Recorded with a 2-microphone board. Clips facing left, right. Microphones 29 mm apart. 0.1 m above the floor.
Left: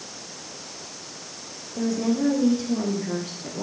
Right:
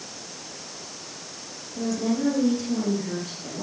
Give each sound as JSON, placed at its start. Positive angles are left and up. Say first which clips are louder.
{"t": 1.8, "sound": "a woman speaking", "louder": "left 2 dB", "side_deg": 20, "distance_m": 6.5}